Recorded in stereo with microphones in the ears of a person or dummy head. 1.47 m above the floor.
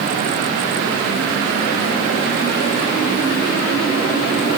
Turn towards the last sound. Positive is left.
No sound to turn to.